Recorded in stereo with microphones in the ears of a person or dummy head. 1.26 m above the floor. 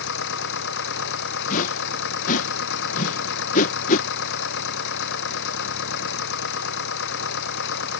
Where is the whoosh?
45° left (ahead or behind).